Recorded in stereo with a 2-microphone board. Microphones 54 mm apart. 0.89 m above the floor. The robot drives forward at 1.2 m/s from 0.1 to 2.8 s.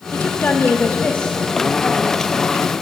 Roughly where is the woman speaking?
Left.